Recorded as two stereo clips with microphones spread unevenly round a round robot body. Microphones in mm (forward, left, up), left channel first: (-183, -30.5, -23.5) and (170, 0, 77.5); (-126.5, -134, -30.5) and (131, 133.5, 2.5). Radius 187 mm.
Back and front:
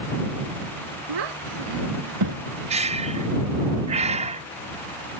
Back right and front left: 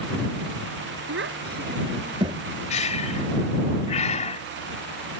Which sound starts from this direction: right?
Breathing, at 2.7 s.